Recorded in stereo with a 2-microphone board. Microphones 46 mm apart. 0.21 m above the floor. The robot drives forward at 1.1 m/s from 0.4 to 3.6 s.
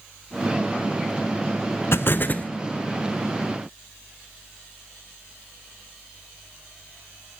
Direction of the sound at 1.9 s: 65° left (ahead or behind).